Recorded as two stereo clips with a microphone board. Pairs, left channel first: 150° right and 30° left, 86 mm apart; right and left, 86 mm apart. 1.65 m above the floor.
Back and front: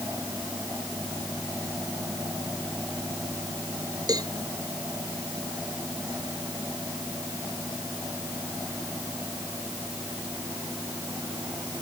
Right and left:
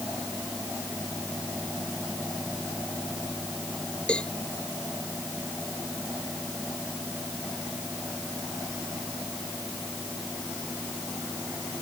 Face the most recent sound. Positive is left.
turn(degrees=-10)